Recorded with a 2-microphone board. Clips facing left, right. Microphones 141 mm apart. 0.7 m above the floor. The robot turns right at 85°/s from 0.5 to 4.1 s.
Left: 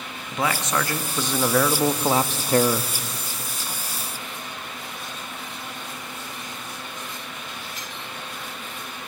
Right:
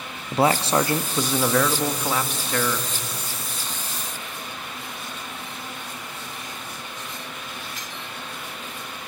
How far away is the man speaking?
About 0.9 m.